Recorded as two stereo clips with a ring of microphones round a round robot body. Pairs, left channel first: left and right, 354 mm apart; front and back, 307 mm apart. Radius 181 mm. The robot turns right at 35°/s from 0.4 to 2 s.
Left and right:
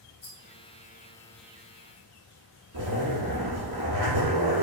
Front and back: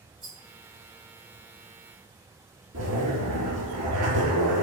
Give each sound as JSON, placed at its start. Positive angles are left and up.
{"t": 0.2, "sound": "a rattle", "azimuth_deg": 110, "distance_m": 1.3}
{"t": 2.7, "sound": "a zipper", "azimuth_deg": -125, "distance_m": 1.3}